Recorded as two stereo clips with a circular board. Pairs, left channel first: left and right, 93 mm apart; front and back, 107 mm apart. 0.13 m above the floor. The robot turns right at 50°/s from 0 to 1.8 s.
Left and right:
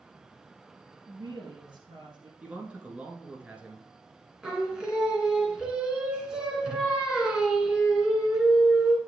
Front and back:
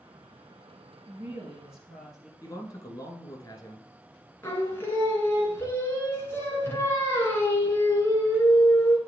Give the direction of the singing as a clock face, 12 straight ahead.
1 o'clock.